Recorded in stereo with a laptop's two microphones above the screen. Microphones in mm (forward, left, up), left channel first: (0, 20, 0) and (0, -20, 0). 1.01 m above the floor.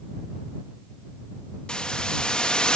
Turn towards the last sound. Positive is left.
turn(degrees=25)  # may be behind; listen again after turning